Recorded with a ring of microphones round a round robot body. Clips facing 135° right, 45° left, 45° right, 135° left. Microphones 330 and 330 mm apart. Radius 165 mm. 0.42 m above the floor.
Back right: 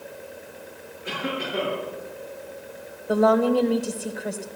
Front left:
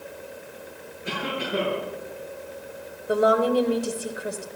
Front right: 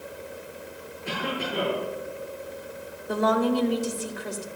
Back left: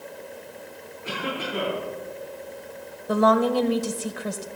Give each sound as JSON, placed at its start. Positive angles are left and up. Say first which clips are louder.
{"t": 1.0, "sound": "a cough", "louder": "back right 1 dB, even", "azimuth_deg": 55, "distance_m": 9.5}
{"t": 3.1, "sound": "a woman speaking", "louder": "back right 1 dB, back left 3 dB", "azimuth_deg": 130, "distance_m": 1.6}